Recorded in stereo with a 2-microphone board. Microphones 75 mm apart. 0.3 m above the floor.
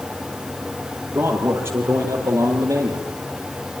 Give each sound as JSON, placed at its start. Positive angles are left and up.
{"t": 1.1, "sound": "a man speaking", "side_deg": -30, "distance_m": 7.5}